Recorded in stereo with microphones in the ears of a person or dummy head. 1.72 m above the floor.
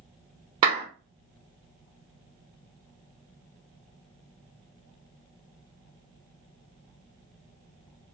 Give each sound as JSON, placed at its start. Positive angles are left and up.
{"t": 0.6, "sound": "a clap", "side_deg": -25, "distance_m": 0.8}